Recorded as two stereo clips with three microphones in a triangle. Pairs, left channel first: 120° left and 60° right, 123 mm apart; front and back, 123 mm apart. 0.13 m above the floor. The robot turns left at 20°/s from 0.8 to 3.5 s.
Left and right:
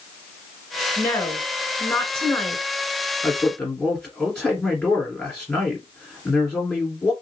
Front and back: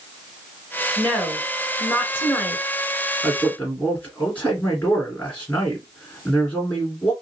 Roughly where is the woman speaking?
Left.